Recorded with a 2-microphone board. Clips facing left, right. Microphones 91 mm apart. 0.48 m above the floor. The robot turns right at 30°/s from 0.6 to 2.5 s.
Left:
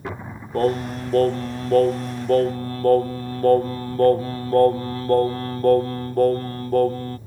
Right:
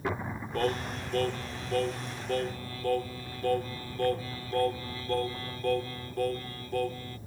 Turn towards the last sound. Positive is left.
turn(degrees=105)